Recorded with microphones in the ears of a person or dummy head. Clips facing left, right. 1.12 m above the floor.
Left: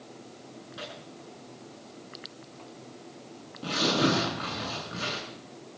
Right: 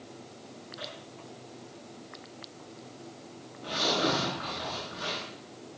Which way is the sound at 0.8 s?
50° left (ahead or behind).